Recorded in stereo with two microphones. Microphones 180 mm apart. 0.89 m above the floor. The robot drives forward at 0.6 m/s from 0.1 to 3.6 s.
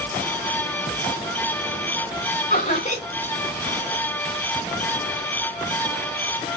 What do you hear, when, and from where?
2.5 s laughter: 40° left (ahead or behind), 3 m; by 3.0 s 35° left (ahead or behind), 3 m